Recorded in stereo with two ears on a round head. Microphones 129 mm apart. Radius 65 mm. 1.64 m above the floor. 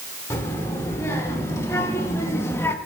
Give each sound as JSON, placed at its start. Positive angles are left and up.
{"t": 0.3, "sound": "a child speaking", "side_deg": 20, "distance_m": 2.5}